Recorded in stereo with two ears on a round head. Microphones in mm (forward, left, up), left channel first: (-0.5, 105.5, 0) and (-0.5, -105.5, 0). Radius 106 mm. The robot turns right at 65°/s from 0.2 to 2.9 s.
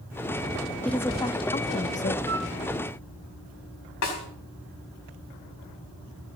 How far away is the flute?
About 2.5 m.